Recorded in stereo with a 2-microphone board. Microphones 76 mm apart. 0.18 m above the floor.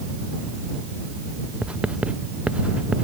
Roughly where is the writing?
Centre.